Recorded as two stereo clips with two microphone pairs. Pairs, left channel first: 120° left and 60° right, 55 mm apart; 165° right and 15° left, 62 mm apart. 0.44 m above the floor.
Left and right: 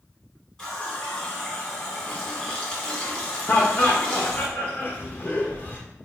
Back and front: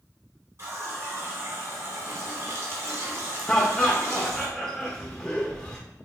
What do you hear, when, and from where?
0.6 s a running tap: 45° left, 1.1 m
3.5 s laughter: 125° left, 0.8 m